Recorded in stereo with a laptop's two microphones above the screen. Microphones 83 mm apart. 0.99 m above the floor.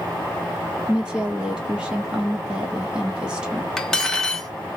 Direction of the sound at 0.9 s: 10° right (ahead or behind).